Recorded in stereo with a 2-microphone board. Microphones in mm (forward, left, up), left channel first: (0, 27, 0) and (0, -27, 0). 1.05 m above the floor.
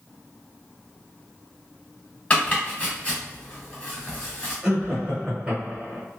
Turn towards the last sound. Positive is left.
turn(degrees=-15)  # may be behind; listen again after turning